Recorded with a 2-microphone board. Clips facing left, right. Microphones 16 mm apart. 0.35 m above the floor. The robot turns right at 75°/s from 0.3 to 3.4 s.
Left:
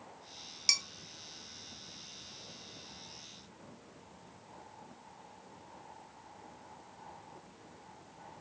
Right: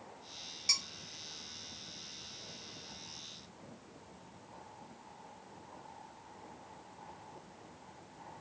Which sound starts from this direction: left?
Dishes clattering, at 0.7 s.